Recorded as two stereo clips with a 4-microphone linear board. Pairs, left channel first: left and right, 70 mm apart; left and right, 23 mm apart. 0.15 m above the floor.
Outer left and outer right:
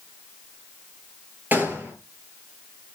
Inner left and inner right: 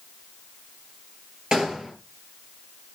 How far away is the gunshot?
About 4 m.